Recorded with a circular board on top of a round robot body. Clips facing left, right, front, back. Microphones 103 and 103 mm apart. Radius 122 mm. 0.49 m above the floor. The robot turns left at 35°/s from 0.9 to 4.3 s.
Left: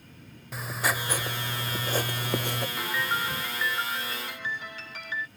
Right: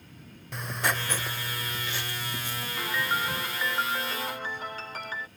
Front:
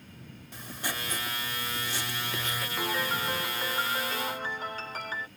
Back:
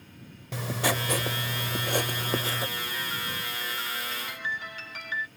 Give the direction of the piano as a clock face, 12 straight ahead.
12 o'clock.